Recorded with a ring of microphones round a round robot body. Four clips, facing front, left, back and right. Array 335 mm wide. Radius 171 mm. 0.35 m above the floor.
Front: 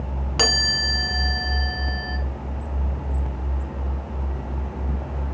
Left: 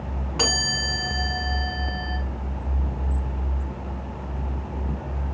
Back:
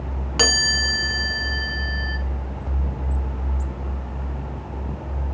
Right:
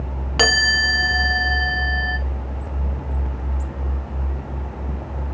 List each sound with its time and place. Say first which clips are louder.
0.4 s a chime: right 9 dB, back 2 dB; 95° right, 0.5 m